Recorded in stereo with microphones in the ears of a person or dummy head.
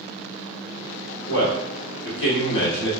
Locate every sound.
1.3 s a man speaking: 70° left (ahead or behind), 1.5 m